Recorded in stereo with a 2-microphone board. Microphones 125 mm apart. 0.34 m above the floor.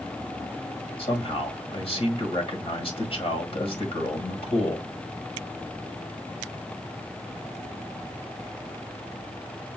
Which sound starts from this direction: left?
A man speaking, at 1.0 s.